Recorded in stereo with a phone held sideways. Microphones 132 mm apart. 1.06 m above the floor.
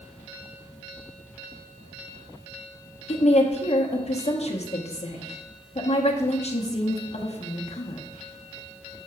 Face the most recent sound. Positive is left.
turn(degrees=55)  # may be behind; listen again after turning